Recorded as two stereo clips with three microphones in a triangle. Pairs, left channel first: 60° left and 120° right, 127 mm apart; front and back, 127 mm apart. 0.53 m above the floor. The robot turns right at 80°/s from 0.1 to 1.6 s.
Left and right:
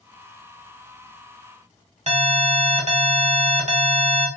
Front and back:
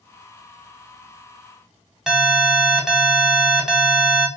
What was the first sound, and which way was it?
An alarm, 95° right.